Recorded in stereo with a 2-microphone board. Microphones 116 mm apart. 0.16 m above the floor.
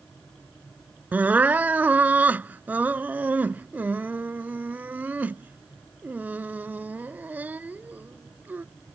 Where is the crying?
15° right (ahead or behind).